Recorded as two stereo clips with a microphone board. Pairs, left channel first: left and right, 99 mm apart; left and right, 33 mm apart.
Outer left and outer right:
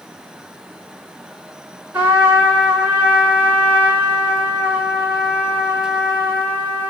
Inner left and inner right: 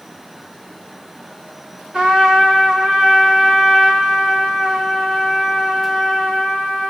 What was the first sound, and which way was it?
A trumpet, 25° right (ahead or behind).